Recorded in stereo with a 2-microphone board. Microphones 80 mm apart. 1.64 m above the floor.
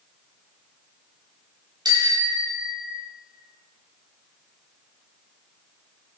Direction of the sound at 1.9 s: 65° right (ahead or behind).